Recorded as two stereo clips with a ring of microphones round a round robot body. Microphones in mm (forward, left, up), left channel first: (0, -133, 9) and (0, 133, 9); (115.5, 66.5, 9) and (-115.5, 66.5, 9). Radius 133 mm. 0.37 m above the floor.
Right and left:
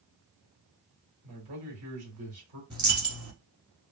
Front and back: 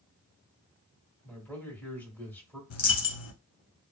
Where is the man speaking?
80° left, 1.7 m.